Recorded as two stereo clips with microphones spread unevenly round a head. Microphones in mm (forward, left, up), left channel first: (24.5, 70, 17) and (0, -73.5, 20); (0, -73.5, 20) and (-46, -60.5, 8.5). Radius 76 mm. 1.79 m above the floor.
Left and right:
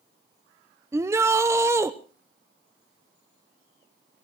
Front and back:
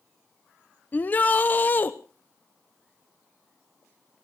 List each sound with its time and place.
0.9 s a shout: 35° right, 0.8 m